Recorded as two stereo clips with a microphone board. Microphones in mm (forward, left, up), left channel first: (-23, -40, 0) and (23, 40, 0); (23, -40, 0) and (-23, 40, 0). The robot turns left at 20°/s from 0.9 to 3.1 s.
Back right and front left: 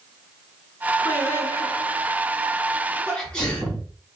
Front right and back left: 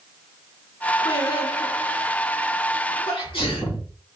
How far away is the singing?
About 2.5 m.